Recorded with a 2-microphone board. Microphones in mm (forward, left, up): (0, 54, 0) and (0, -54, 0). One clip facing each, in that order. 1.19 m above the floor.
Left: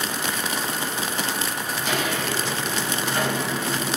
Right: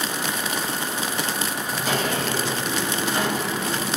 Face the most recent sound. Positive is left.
turn(degrees=5)  # may be behind; listen again after turning